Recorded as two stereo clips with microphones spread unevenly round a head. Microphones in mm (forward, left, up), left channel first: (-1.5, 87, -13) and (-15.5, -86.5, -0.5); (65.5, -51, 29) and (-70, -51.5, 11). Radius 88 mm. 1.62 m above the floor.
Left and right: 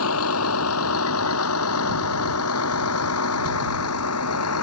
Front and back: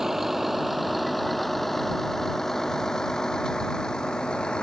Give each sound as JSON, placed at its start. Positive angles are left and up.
{"t": 0.0, "sound": "a vehicle", "azimuth_deg": 90}